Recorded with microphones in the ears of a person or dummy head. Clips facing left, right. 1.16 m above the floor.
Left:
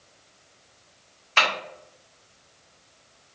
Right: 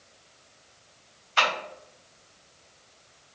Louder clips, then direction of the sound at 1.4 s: Left 1 dB; 65° left (ahead or behind).